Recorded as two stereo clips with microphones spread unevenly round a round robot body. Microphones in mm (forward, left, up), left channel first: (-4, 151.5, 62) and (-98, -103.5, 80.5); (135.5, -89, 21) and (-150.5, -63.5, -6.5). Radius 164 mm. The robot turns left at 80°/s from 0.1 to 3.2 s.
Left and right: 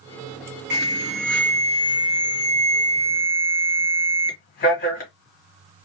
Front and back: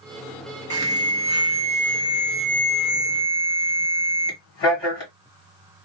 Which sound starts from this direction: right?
An alarm, at 0.7 s.